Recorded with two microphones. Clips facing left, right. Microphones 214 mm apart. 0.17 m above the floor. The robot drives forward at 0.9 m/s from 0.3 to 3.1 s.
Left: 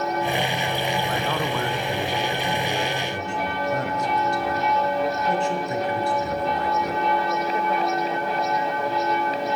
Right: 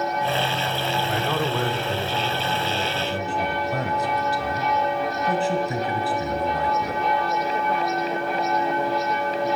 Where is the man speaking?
5° right (ahead or behind), 1.3 m.